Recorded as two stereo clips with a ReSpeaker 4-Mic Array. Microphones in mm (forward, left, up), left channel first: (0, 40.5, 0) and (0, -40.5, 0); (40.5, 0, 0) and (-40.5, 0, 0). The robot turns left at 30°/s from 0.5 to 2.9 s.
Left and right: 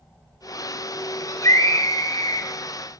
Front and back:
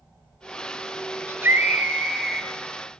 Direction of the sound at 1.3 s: 125° left.